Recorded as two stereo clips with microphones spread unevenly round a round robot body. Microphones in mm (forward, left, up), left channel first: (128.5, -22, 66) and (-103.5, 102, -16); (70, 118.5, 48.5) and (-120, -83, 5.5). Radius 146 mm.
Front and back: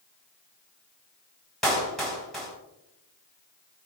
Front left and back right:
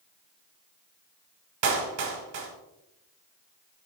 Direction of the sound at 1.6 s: 120° right.